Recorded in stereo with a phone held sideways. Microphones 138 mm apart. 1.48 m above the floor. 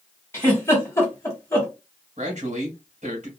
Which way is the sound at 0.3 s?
20° left (ahead or behind).